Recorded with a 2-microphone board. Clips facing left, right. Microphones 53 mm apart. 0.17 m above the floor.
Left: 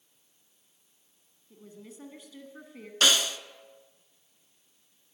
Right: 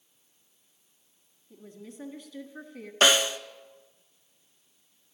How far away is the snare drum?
About 0.6 m.